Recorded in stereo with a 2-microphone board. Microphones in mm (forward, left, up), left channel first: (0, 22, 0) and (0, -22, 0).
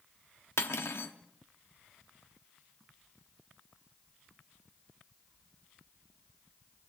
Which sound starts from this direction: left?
Cutlery clinking, at 0.6 s.